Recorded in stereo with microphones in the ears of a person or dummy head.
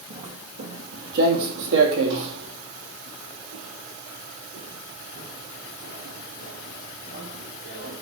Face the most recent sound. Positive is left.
turn(degrees=-80)